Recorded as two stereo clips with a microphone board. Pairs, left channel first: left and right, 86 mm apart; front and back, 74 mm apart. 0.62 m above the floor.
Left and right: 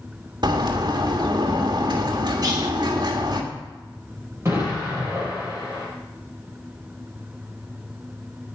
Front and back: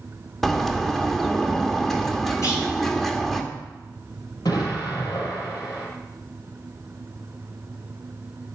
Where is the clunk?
45° right, 5 m.